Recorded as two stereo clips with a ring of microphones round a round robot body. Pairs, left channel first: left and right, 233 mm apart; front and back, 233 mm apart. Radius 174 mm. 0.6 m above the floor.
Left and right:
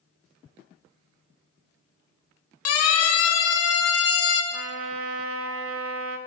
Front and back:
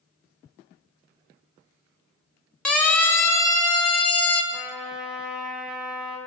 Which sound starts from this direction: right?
A trumpet, at 4.5 s.